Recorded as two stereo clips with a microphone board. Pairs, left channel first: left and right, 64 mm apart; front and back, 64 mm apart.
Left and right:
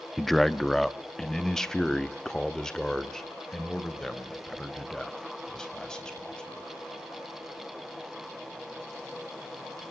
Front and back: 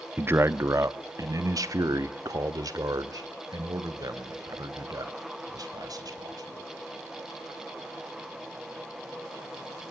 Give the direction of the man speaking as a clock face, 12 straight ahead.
6 o'clock.